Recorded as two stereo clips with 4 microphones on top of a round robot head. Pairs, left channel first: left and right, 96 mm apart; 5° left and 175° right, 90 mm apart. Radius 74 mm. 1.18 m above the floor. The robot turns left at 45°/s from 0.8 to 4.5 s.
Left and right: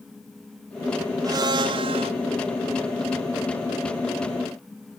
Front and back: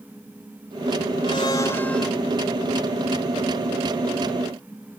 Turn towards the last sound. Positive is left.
turn(degrees=170)